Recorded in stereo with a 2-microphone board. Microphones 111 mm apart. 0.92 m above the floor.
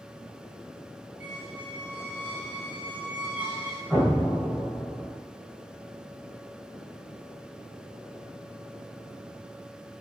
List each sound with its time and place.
1.2 s a squeak: 15° right (ahead or behind), 0.8 m
3.9 s an explosion: 5° left (ahead or behind), 1.1 m